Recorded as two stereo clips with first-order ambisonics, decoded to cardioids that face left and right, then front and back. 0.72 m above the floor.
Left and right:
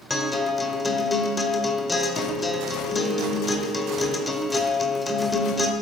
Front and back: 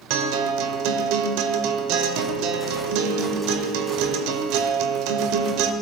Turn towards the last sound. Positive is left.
turn(degrees=165)